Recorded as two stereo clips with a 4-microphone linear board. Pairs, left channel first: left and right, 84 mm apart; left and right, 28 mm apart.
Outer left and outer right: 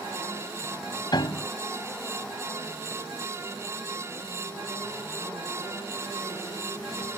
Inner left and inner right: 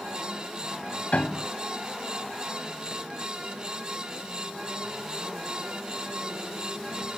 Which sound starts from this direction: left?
A piano, at 1.1 s.